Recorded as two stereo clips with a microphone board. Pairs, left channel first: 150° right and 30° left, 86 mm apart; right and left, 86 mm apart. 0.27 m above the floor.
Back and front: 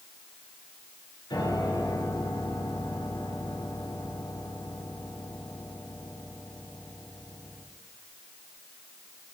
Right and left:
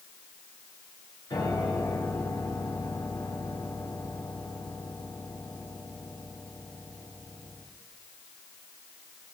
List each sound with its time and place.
1.3 s a piano: 120° right, 5 m